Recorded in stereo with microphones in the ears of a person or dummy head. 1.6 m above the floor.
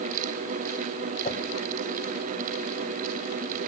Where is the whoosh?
45° left (ahead or behind), 1.9 m.